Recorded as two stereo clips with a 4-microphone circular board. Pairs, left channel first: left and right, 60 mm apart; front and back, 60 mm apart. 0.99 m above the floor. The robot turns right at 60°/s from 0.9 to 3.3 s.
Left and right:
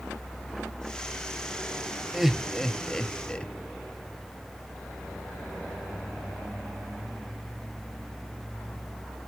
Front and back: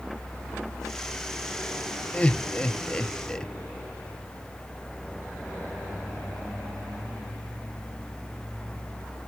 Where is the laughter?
20° right, 0.7 m; by 3.5 s 50° left, 0.7 m.